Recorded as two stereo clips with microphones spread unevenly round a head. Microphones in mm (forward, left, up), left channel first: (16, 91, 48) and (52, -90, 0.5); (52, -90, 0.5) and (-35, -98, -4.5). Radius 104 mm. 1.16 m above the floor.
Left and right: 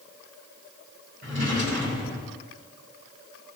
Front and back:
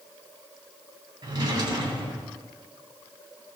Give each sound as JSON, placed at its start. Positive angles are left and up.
{"t": 1.2, "sound": "a drawer", "azimuth_deg": -140, "distance_m": 3.0}